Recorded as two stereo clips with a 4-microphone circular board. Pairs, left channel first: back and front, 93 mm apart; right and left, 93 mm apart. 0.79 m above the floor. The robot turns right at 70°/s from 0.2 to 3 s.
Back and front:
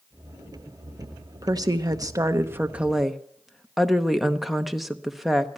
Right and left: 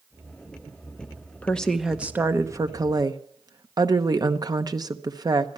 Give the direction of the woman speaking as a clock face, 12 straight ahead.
1 o'clock.